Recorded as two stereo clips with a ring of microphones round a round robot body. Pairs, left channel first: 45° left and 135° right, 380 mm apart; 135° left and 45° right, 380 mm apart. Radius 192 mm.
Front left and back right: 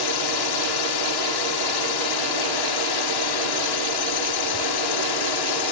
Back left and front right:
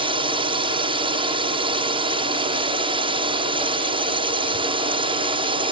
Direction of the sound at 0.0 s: 30° left.